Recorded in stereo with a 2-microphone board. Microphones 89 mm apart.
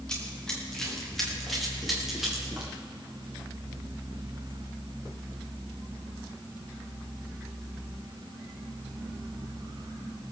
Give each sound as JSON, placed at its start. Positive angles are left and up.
{"t": 0.1, "sound": "running footsteps", "side_deg": 10, "distance_m": 6.0}